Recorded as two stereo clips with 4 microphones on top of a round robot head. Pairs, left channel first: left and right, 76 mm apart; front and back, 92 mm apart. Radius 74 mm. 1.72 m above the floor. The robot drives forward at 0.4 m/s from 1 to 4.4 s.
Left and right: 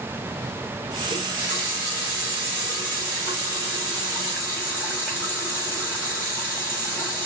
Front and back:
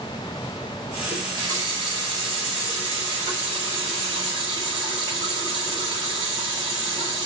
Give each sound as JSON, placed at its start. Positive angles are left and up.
{"t": 1.1, "sound": "a running tap", "azimuth_deg": -155, "distance_m": 3.0}